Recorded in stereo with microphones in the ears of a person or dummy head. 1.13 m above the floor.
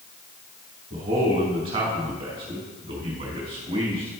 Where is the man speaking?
35° right (ahead or behind), 1.8 m.